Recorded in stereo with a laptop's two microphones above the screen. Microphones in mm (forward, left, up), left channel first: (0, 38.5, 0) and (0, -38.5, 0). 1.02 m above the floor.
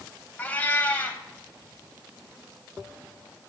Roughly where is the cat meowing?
Left.